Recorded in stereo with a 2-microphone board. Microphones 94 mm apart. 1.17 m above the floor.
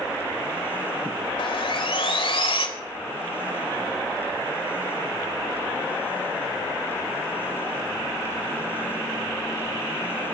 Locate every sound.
1.4 s sawing: 80° left, 2.5 m